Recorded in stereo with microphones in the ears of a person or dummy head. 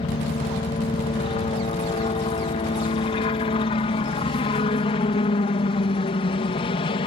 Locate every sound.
0.0 s a helicopter: 30° left (ahead or behind)